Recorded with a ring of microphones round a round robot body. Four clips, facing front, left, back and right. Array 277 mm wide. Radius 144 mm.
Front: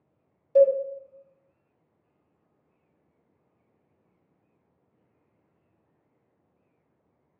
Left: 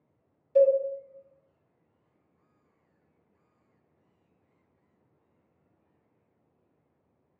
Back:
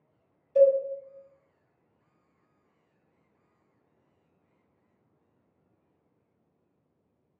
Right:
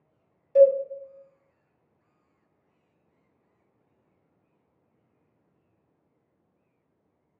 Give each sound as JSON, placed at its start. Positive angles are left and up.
{"t": 0.6, "sound": "a cowbell", "azimuth_deg": -25, "distance_m": 1.3}